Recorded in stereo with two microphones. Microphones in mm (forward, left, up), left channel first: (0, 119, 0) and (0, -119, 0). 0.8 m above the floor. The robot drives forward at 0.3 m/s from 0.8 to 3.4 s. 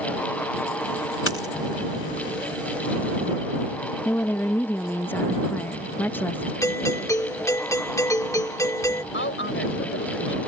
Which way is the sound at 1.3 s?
65° left (ahead or behind).